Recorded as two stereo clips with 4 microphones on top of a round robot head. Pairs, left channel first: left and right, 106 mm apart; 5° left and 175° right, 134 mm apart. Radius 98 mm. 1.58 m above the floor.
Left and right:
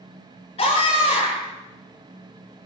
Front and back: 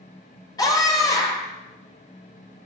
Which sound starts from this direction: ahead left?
A scream, at 0.6 s.